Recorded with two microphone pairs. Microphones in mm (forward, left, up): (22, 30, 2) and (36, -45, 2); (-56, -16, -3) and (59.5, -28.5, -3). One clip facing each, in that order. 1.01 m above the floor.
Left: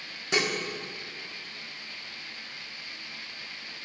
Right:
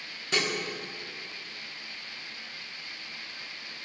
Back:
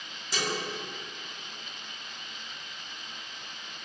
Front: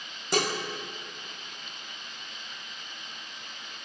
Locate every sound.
0.3 s dishes clattering: 30° left, 1.6 m